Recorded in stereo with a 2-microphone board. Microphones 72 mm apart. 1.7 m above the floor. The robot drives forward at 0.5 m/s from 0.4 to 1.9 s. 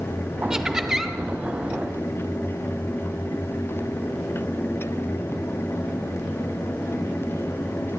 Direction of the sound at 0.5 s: 10° right (ahead or behind).